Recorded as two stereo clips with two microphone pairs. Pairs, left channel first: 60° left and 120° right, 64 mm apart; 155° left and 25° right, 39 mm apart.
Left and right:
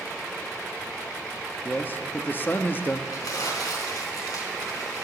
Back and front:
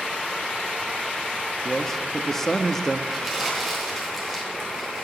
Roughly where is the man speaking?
Left.